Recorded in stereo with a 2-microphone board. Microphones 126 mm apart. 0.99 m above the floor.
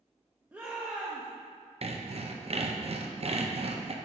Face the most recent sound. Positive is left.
turn(degrees=-55)  # may be behind; listen again after turning